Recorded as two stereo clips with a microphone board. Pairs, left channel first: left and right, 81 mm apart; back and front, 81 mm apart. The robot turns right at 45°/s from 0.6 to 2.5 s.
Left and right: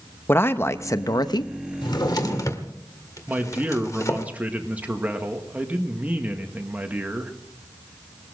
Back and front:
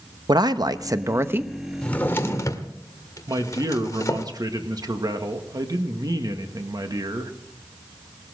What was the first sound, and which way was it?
A man speaking, 30° left.